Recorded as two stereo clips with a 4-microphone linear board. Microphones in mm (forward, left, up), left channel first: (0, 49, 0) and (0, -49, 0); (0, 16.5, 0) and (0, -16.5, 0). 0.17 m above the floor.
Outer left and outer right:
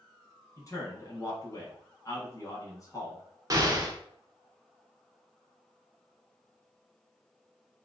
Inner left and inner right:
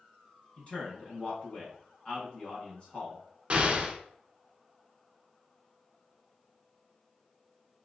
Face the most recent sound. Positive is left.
turn(degrees=-35)  # may be behind; listen again after turning